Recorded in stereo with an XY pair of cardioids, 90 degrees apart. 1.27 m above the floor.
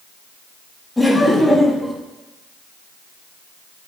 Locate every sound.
1.0 s laughter: 15° left, 1.8 m